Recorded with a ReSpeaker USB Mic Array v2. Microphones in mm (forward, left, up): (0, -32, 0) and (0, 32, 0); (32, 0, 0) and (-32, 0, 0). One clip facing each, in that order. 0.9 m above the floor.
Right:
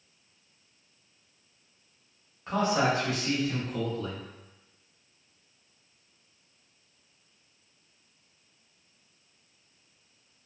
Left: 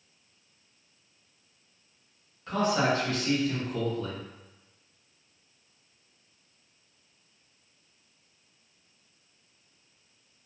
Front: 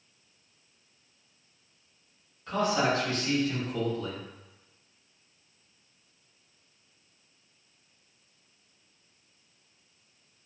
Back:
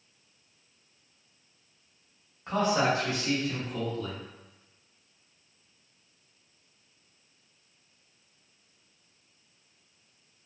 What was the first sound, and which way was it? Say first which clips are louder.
A man speaking: even, back 1 dB; 140° right.